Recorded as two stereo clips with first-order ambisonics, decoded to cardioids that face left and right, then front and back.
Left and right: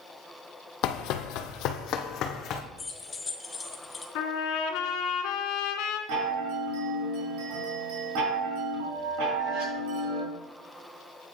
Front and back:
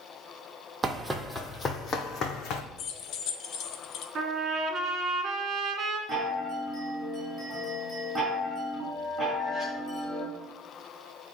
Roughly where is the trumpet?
Behind left.